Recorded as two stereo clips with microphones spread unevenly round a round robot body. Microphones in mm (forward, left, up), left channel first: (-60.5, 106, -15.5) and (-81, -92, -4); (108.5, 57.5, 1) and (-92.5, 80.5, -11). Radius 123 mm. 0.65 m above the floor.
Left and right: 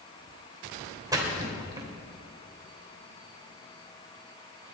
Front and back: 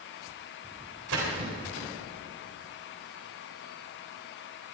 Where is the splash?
170° right, 3.5 m.